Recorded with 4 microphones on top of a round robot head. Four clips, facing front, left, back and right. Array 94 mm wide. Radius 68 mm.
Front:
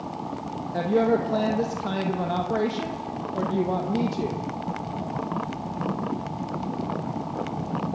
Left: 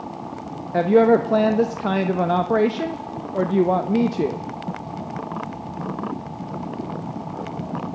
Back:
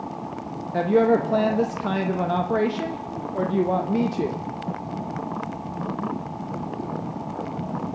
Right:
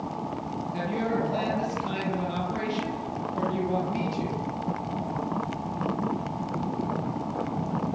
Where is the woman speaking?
100° left, 1.3 m.